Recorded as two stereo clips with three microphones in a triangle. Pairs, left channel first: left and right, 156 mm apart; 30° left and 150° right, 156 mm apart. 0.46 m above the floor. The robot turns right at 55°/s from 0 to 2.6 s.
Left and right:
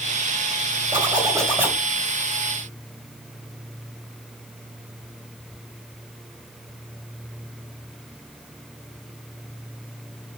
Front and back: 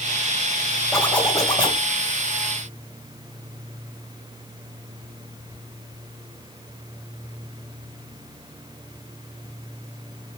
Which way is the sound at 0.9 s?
55° right.